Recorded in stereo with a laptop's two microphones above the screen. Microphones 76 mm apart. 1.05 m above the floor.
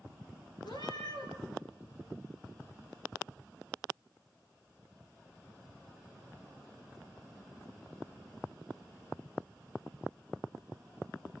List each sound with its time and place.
0.6 s a cat meowing: 80° left, 5.5 m